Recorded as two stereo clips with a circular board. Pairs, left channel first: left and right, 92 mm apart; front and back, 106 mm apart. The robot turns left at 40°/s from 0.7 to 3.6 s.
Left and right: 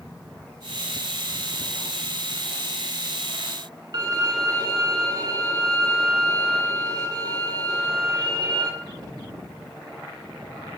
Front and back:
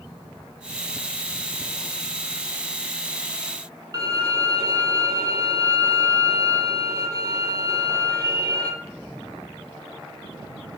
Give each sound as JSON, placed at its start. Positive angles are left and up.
{"t": 3.9, "sound": "a violin", "azimuth_deg": -130, "distance_m": 0.5}